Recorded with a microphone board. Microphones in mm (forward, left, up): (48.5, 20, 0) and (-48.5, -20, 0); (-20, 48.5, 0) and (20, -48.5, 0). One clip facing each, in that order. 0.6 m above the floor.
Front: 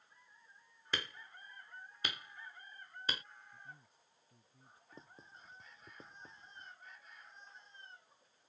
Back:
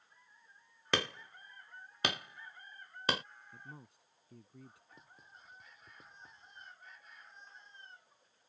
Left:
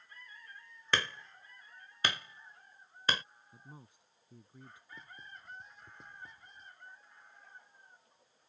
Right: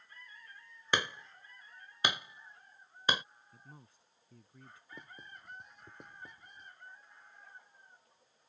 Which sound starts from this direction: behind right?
Hammering, at 0.9 s.